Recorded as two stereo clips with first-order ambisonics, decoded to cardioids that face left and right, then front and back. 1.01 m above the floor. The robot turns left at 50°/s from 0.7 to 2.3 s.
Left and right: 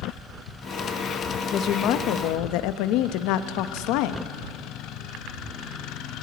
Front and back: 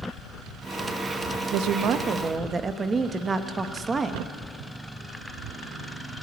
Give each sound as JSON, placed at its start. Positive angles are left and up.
{"t": 1.5, "sound": "a woman speaking", "azimuth_deg": 150, "distance_m": 1.0}